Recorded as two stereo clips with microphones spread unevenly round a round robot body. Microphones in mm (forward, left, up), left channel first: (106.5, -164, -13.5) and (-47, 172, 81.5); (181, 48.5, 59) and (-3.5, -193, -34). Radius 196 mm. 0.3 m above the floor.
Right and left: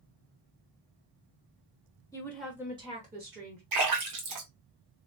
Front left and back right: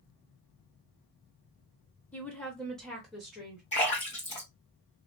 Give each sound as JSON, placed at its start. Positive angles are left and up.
{"t": 2.1, "sound": "a woman speaking", "azimuth_deg": -70, "distance_m": 1.1}
{"t": 3.7, "sound": "a splash", "azimuth_deg": 135, "distance_m": 1.5}